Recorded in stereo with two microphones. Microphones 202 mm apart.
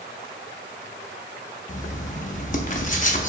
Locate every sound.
1.7 s writing: 40° left (ahead or behind), 0.6 m